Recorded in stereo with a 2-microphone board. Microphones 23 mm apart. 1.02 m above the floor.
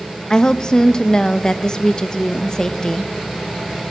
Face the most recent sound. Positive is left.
turn(degrees=25)  # may be behind; listen again after turning